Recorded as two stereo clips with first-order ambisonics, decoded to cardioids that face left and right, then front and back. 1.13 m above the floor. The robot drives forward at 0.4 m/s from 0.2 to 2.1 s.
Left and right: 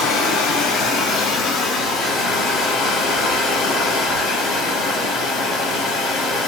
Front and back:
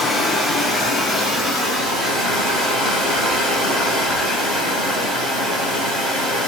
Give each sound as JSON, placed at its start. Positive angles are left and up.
{"t": 0.0, "sound": "running water", "azimuth_deg": 95, "distance_m": 1.1}